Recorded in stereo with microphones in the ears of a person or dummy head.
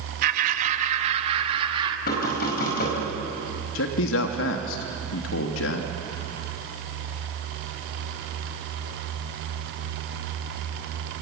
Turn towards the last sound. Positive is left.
turn(degrees=70)  # may be behind; listen again after turning